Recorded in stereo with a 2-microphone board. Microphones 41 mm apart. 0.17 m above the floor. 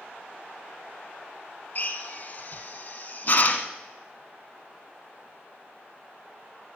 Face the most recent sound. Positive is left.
turn(degrees=40)  # may be behind; listen again after turning